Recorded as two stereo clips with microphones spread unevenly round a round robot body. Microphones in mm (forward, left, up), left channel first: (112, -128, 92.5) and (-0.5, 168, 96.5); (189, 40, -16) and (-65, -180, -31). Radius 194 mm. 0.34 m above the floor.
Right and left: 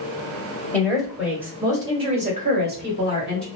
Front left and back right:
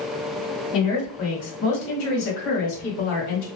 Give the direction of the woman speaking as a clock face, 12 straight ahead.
11 o'clock.